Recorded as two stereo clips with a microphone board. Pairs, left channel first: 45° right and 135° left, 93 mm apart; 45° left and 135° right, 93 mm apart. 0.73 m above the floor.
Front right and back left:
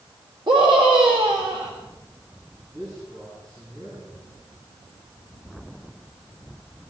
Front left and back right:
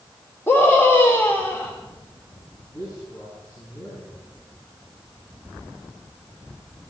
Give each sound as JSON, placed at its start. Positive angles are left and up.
{"t": 0.5, "sound": "a scream", "azimuth_deg": 110, "distance_m": 1.8}
{"t": 2.7, "sound": "a man speaking", "azimuth_deg": 95, "distance_m": 7.5}